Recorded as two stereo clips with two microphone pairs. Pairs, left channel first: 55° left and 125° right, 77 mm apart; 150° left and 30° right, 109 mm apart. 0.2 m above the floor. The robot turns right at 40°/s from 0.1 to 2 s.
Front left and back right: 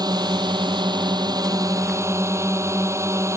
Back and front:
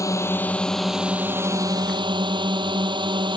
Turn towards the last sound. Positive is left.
turn(degrees=-75)